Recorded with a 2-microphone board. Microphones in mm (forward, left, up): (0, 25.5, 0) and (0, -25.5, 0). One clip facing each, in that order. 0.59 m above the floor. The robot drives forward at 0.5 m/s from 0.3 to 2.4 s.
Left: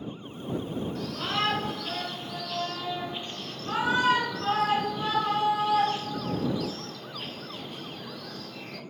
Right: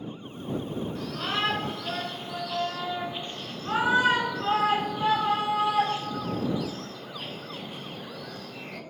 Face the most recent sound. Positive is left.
turn(degrees=-10)  # may be behind; listen again after turning